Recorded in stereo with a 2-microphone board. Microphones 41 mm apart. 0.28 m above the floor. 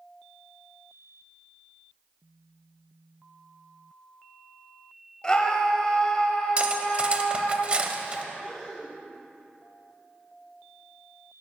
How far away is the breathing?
About 2.5 m.